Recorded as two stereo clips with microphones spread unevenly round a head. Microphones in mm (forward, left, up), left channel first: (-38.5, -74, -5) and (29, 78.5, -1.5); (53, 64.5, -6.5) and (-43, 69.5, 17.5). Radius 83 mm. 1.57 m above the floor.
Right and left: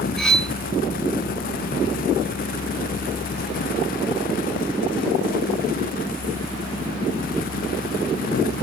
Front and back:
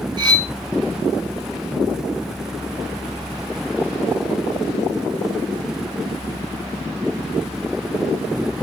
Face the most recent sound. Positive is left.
turn(degrees=160)